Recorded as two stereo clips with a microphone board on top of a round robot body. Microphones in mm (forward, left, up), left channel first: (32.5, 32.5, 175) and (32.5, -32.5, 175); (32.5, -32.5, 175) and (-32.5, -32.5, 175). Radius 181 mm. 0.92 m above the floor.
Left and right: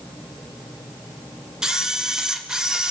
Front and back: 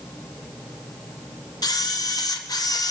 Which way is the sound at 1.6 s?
10° right.